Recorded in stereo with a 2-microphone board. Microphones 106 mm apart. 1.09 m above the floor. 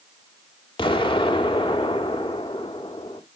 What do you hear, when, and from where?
0.8 s an explosion: 55° left (ahead or behind), 1.7 m